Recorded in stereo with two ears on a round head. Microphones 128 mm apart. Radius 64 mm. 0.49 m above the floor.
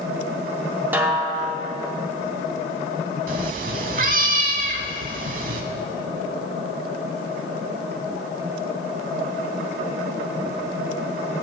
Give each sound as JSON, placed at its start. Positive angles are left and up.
{"t": 0.9, "sound": "a snare drum", "side_deg": -15, "distance_m": 1.3}
{"t": 3.3, "sound": "a cat meowing", "side_deg": -55, "distance_m": 0.8}